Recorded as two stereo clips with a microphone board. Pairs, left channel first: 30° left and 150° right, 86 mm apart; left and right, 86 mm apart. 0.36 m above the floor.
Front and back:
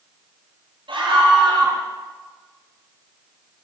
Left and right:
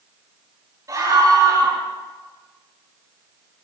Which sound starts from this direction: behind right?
A scream, at 0.9 s.